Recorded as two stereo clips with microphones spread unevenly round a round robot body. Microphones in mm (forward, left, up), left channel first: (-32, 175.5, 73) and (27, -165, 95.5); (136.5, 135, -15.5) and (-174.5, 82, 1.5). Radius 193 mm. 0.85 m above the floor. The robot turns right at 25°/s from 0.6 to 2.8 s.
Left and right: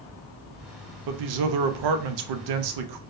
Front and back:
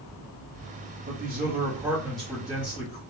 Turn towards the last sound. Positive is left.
turn(degrees=-60)